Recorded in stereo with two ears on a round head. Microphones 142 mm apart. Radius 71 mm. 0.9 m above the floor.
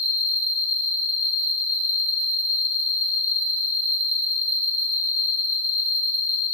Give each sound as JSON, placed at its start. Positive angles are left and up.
{"t": 0.0, "sound": "an insect", "side_deg": -10, "distance_m": 1.9}